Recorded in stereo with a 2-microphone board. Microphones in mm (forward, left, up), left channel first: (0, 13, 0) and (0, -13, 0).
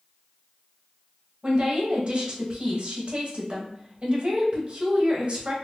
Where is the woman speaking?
40° right (ahead or behind), 1.2 m.